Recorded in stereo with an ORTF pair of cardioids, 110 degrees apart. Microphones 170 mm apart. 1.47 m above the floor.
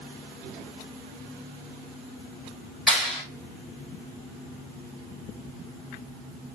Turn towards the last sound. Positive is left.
turn(degrees=0)